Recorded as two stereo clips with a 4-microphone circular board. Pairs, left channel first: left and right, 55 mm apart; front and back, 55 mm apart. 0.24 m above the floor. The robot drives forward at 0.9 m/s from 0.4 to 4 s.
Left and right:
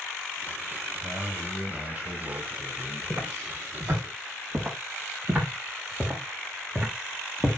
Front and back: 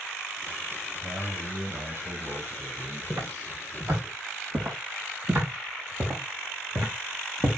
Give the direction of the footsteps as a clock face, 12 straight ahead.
4 o'clock.